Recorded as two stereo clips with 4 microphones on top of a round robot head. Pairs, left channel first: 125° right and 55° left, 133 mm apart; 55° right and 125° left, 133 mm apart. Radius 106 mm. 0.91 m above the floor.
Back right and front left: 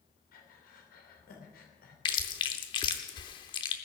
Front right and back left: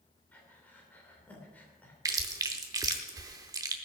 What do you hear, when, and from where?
0.3 s breathing: 135° right, 3 m
2.0 s chewing: 175° right, 0.6 m